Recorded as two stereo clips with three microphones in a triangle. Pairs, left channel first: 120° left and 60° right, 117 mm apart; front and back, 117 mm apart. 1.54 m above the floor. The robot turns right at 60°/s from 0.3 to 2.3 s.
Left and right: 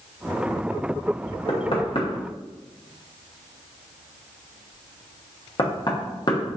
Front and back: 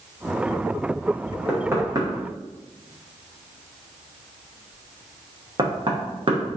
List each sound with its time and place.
1.5 s knocking: 105° left, 0.8 m; by 6.6 s 155° left, 0.8 m